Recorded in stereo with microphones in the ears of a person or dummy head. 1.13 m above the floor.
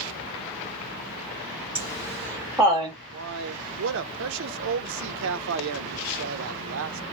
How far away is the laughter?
About 1.1 m.